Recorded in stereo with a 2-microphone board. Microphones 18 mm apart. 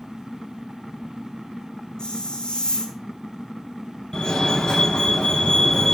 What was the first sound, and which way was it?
A hiss, 50° left (ahead or behind).